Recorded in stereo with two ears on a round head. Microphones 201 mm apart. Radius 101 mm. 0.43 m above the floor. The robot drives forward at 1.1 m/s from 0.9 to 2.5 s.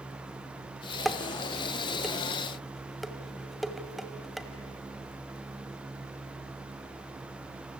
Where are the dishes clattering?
Centre (ahead or behind), 0.5 m.